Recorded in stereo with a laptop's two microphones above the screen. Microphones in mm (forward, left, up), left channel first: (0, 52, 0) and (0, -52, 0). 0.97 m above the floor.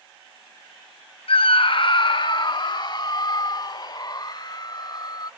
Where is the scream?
65° left (ahead or behind); by 5.3 s 40° left (ahead or behind).